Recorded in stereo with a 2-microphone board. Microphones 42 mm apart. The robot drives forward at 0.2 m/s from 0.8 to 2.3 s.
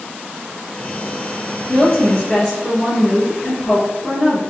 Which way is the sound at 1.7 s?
20° left (ahead or behind).